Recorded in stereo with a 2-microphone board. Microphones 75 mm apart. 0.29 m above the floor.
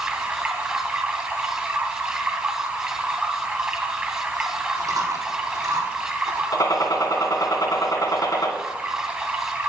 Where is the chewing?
55° right (ahead or behind), 4 m.